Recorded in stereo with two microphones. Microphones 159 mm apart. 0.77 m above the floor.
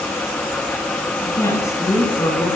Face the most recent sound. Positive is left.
turn(degrees=20)  # may be behind; listen again after turning